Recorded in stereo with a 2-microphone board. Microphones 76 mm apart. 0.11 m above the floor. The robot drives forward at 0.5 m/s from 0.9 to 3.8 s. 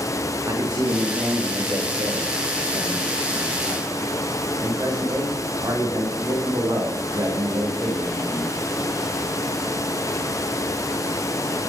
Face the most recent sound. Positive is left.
turn(degrees=-45)  # may be behind; listen again after turning